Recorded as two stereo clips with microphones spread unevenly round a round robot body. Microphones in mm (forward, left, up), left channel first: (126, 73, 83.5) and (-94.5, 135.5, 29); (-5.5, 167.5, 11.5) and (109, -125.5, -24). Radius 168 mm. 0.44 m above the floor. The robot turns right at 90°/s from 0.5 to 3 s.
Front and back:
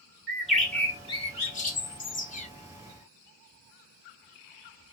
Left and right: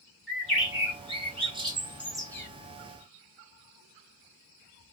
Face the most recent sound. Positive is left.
turn(degrees=80)